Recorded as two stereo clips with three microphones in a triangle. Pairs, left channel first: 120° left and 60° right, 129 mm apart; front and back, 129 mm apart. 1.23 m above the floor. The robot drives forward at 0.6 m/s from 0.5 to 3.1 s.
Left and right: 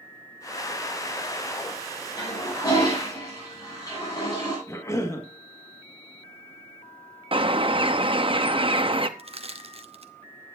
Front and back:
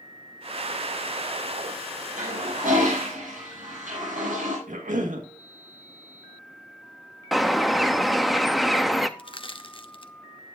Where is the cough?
175° right, 1.7 m.